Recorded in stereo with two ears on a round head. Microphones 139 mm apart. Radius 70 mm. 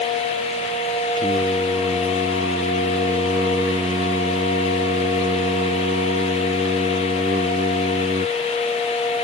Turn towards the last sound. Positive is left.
turn(degrees=-30)  # may be behind; listen again after turning